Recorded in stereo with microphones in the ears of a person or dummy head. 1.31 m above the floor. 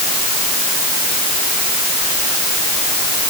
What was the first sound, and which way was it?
Only background noise.